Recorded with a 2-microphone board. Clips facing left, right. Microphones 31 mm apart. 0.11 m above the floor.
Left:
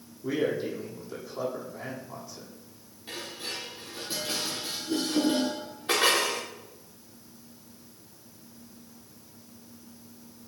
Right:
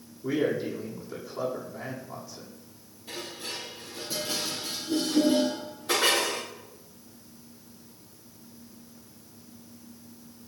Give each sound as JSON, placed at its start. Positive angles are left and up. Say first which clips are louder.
{"t": 0.2, "sound": "a man speaking", "louder": "right 1 dB", "side_deg": 5, "distance_m": 6.0}
{"t": 3.1, "sound": "dishes clattering", "louder": "even", "side_deg": 40, "distance_m": 7.5}